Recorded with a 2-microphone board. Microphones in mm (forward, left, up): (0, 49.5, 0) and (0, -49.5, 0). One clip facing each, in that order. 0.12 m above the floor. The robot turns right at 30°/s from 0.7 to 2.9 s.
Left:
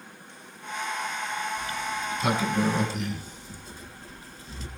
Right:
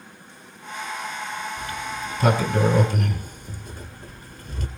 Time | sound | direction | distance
1.6 | a sliding door | 50° right (ahead or behind) | 1.9 m